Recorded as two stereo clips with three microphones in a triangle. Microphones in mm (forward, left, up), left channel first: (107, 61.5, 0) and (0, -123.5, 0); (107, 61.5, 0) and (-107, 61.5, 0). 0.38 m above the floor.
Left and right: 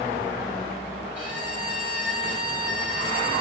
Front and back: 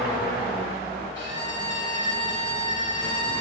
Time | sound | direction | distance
1.1 | a violin | straight behind | 2.5 m